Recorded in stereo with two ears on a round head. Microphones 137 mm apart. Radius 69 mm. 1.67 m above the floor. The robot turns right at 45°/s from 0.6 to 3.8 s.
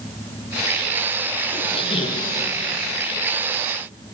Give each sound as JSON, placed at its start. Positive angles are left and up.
{"t": 1.5, "sound": "a squeak", "azimuth_deg": 95, "distance_m": 0.7}